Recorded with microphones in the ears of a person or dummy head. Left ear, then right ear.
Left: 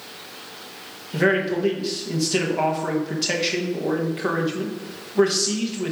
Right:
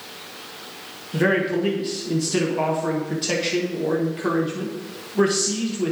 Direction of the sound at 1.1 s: 15° left (ahead or behind).